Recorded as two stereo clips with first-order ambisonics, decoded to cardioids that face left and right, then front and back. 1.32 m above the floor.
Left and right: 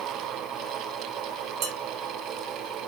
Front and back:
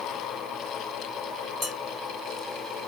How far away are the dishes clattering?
About 1.0 m.